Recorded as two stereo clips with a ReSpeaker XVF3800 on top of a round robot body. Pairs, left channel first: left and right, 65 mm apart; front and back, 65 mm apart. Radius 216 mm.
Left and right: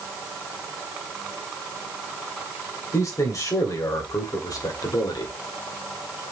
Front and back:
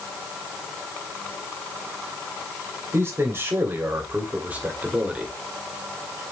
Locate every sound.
2.9 s a man speaking: 130° left, 3.5 m; by 5.3 s 105° left, 2.5 m